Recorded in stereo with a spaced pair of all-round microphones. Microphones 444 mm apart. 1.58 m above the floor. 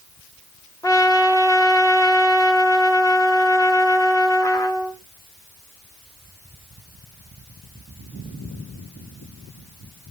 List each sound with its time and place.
0.8 s a trumpet: 10° left (ahead or behind), 1.0 m